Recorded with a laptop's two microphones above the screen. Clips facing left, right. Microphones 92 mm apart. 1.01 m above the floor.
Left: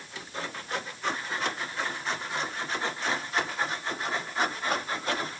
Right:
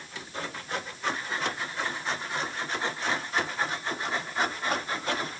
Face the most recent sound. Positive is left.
No sound to turn to.